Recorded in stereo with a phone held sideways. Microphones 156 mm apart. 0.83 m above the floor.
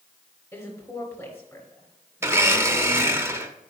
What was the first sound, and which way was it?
A woman speaking, 20° left (ahead or behind).